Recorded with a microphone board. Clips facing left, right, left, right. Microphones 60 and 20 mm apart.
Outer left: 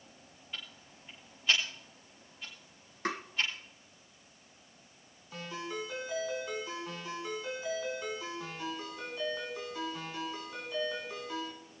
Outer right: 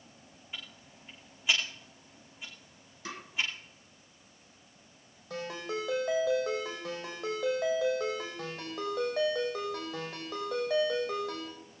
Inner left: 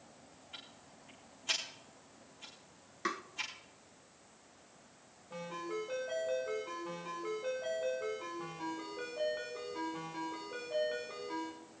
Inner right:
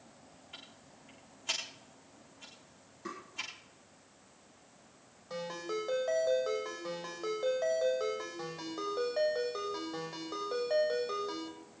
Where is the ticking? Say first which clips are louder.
Even, even; 10° right (ahead or behind), 6 m.